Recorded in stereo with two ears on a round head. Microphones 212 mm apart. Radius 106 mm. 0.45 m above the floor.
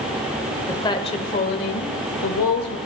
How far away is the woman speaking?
About 1.7 m.